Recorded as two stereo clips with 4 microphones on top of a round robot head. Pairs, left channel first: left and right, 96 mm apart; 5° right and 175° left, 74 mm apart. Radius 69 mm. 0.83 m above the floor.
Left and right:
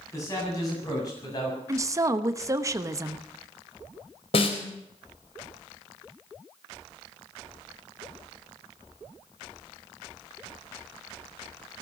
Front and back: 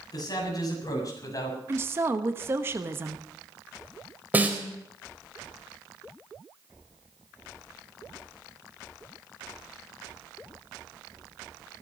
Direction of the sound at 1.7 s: 135° right.